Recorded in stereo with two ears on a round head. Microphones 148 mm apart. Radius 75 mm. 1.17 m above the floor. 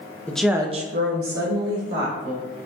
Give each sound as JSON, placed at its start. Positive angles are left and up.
{"t": 0.3, "sound": "a woman speaking", "side_deg": 10, "distance_m": 0.7}